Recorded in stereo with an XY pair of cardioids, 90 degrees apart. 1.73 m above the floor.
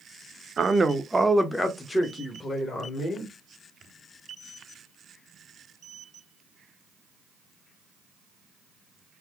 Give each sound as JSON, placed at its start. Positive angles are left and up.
{"t": 0.6, "sound": "a man speaking", "azimuth_deg": -40, "distance_m": 0.7}